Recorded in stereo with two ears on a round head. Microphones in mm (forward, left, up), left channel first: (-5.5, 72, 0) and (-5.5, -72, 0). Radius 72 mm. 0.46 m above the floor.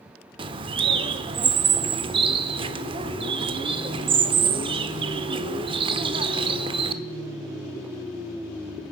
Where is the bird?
30° right (ahead or behind), 0.7 m.